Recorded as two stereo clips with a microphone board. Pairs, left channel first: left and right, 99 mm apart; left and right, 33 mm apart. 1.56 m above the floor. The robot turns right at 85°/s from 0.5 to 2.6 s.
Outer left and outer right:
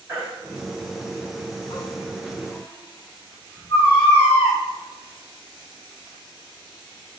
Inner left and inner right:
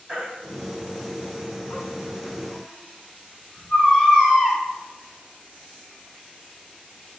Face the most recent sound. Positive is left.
turn(degrees=30)  # may be behind; listen again after turning